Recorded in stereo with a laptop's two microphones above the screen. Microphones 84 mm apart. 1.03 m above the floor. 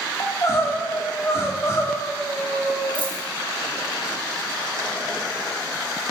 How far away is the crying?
About 1.1 m.